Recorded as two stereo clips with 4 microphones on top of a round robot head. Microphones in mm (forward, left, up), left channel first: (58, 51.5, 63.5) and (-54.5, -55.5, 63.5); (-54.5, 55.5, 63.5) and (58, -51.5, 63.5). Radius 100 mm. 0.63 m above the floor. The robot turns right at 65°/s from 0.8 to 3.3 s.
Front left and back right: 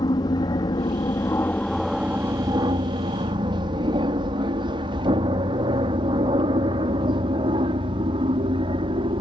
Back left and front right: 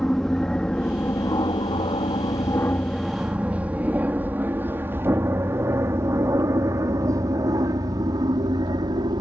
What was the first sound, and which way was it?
An aircraft, 55° left.